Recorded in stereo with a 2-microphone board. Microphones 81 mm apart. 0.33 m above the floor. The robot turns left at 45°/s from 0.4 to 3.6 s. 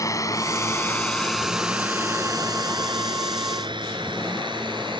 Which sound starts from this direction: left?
A drone, at 0.0 s.